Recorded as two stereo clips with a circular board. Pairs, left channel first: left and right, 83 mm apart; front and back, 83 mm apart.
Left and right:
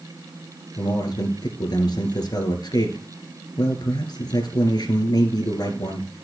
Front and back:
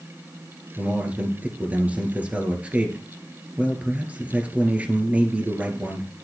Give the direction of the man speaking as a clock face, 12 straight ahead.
8 o'clock.